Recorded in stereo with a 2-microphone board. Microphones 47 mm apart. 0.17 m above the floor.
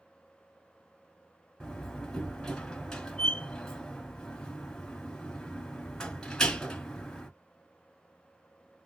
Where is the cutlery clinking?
No cutlery clinking in this recording.